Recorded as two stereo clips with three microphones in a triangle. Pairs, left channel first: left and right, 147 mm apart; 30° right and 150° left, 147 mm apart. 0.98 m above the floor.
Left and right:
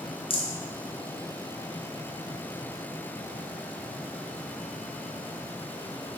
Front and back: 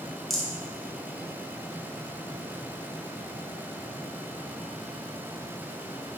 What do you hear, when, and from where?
0.3 s a rattle: 55° left, 0.5 m